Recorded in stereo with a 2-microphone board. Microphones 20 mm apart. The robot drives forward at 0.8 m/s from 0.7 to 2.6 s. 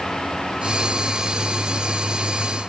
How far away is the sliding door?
No sliding door in this recording.